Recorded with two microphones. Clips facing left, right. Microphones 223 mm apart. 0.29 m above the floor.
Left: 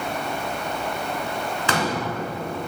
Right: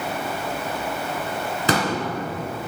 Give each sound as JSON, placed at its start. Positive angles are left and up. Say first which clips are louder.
{"t": 1.7, "sound": "a pop", "louder": "right 3 dB", "side_deg": -40, "distance_m": 1.6}